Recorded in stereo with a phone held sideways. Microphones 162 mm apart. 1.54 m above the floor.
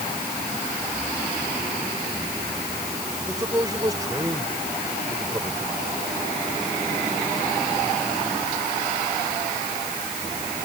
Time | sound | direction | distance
3.2 | a man speaking | 20° right (ahead or behind) | ?